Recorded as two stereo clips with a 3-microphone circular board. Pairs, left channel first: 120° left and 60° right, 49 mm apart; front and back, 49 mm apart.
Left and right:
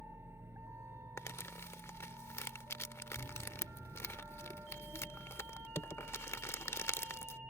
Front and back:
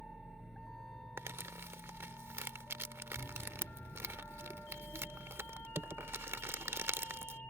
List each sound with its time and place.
0.0 s a vehicle: 90° right; by 7.5 s 40° right
1.2 s crumpling: 145° left